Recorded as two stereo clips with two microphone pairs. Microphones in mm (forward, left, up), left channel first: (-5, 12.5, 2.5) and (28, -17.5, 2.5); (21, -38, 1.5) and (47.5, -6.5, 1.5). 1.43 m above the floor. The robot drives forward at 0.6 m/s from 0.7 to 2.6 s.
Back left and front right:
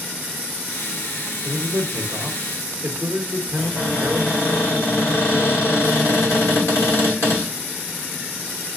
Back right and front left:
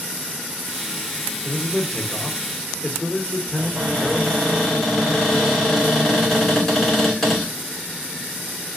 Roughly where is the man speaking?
Ahead right.